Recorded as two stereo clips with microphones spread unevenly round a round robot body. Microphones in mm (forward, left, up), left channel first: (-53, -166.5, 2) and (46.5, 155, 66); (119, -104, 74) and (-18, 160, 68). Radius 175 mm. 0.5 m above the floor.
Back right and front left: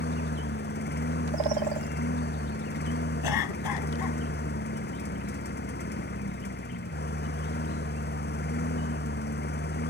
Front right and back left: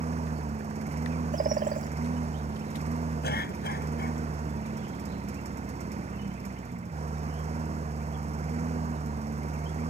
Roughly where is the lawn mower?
Behind.